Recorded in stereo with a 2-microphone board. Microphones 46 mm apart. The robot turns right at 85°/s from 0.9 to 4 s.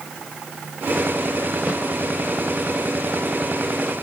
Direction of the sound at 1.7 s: 25° right (ahead or behind).